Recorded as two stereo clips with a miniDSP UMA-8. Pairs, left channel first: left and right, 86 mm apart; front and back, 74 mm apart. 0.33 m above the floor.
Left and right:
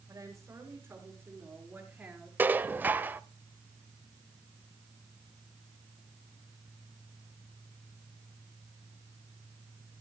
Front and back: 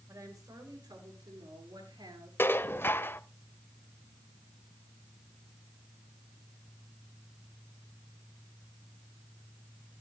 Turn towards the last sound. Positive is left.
turn(degrees=-35)